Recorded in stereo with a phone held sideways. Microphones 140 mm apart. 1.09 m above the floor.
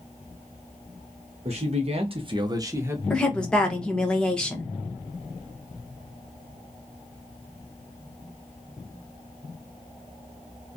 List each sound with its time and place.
1.4 s a man speaking: 45° right (ahead or behind), 0.6 m; by 3.0 s 15° right (ahead or behind), 0.7 m
3.1 s a woman speaking: 5° left (ahead or behind), 0.7 m